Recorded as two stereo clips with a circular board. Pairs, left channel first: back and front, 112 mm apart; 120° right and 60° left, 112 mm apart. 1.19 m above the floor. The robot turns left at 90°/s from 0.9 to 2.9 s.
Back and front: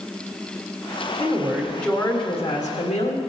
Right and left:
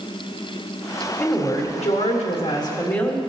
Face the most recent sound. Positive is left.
turn(degrees=165)